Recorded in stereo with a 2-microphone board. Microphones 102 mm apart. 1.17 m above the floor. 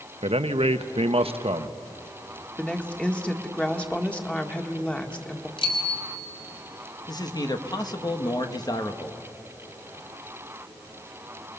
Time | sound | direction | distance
0.2 | a man speaking | 75° right (ahead or behind) | 0.9 m
2.6 | a woman speaking | 10° left (ahead or behind) | 1.7 m
5.6 | a bicycle bell | 55° left (ahead or behind) | 3.5 m
7.1 | a man speaking | 40° left (ahead or behind) | 1.4 m